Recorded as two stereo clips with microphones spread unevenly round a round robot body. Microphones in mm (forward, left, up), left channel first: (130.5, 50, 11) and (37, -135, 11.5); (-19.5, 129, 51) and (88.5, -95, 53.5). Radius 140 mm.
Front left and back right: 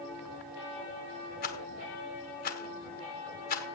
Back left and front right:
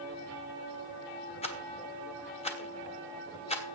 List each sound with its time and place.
1.4 s a rattle: 60° left, 1.9 m